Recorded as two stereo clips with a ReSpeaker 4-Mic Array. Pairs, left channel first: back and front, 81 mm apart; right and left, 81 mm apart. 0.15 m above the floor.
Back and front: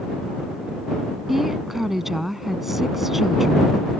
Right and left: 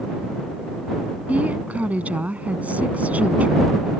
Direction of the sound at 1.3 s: 80° left.